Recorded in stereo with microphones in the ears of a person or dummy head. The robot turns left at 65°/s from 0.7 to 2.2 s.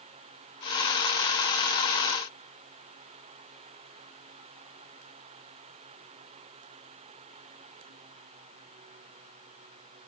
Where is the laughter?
No laughter in this recording.